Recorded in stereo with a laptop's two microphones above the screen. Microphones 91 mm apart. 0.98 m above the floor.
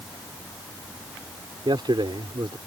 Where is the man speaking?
65° right (ahead or behind).